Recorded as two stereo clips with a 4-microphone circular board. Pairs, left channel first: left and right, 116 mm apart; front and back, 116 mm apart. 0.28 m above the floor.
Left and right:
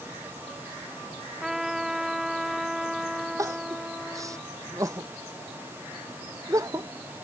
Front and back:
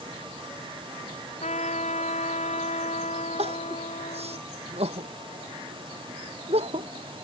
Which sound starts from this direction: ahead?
A trumpet, at 1.4 s.